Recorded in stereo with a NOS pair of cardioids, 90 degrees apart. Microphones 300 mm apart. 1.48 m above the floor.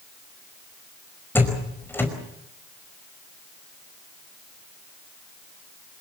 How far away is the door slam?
About 5 m.